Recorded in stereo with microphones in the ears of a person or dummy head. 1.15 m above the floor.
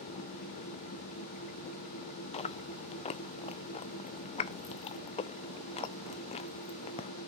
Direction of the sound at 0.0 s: 40° left (ahead or behind).